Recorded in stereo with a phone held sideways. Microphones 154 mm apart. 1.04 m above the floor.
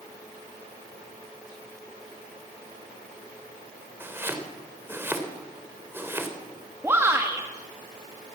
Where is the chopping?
15° right (ahead or behind), 3.5 m.